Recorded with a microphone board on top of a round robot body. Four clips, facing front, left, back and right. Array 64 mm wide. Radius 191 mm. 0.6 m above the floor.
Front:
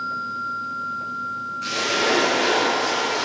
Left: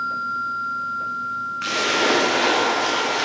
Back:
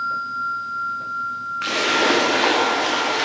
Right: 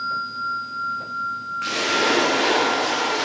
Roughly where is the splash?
Behind.